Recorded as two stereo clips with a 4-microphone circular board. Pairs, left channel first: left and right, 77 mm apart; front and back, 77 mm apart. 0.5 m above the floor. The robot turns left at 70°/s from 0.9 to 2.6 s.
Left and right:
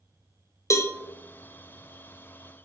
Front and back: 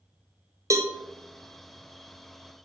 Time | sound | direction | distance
0.7 | a cowbell | 135° left | 0.8 m